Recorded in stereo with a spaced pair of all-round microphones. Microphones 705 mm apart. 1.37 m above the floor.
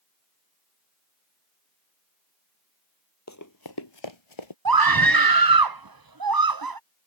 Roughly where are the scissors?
I don't hear scissors.